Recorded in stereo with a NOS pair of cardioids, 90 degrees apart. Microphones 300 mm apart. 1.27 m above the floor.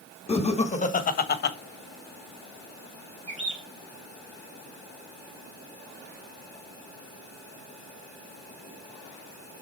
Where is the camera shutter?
I don't hear a camera shutter.